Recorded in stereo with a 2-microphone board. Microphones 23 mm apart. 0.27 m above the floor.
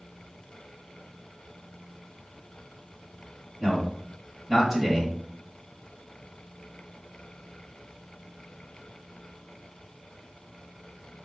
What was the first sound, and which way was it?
A man speaking, 25° right (ahead or behind).